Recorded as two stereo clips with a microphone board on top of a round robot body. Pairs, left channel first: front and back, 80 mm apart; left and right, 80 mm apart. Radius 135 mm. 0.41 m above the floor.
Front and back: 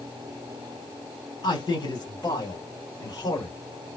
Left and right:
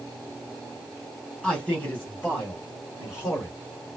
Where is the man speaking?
10° left, 2 m; by 3.5 s 40° left, 3 m.